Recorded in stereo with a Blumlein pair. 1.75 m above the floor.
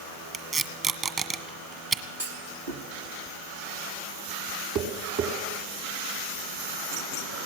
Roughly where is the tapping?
Ahead right.